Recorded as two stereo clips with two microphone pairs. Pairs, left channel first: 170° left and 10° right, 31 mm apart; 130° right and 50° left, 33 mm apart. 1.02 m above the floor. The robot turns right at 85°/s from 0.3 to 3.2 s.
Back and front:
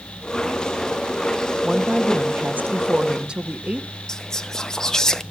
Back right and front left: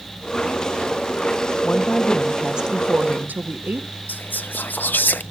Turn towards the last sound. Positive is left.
turn(degrees=-120)